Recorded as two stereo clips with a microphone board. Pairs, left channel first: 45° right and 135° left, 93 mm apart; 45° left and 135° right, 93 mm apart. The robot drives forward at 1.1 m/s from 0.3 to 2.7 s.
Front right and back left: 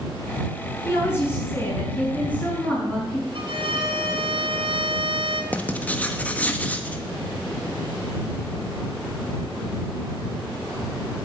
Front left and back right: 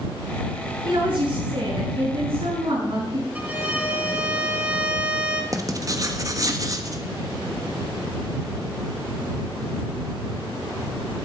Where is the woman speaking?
105° right, 6.5 m; by 3.2 s 120° right, 7 m.